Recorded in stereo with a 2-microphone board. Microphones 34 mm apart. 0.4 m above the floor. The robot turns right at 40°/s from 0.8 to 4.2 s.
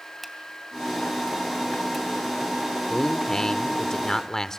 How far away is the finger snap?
About 2.5 m.